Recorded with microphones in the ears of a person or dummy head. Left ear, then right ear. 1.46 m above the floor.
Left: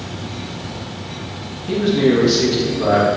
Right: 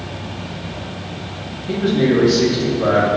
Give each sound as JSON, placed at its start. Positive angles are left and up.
{"t": 1.7, "sound": "a man speaking", "side_deg": 10, "distance_m": 2.5}